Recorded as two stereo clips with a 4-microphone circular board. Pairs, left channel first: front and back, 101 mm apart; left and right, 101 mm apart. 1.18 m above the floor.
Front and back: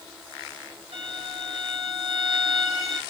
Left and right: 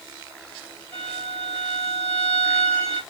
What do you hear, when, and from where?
0.9 s a violin: 170° left, 1.8 m